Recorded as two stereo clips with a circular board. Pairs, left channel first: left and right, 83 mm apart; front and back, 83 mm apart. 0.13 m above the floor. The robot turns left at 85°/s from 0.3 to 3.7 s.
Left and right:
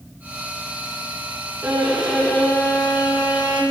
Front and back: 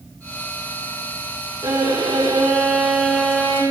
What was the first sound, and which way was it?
A violin, 145° right.